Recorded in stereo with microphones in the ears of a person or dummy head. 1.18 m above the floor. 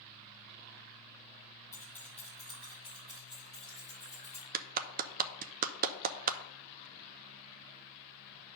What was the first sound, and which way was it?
Keys jangling, 15° left (ahead or behind).